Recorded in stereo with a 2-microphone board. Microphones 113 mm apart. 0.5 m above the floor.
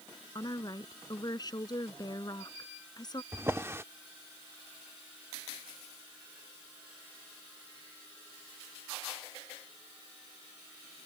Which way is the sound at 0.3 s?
35° left (ahead or behind).